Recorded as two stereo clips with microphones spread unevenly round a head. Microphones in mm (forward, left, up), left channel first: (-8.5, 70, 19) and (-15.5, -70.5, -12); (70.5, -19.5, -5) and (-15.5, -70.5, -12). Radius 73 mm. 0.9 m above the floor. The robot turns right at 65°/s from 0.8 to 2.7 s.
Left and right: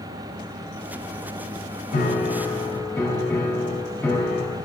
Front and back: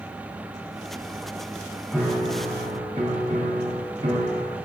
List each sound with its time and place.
1.9 s a piano: 120° left, 3.5 m; by 4.6 s 170° left, 3.5 m